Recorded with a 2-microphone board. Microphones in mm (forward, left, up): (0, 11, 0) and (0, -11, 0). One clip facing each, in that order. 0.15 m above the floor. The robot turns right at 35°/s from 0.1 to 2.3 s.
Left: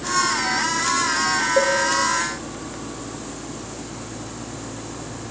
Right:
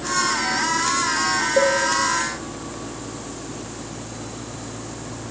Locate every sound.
1.6 s a cowbell: centre (ahead or behind), 0.6 m; by 1.8 s 5° left (ahead or behind), 0.6 m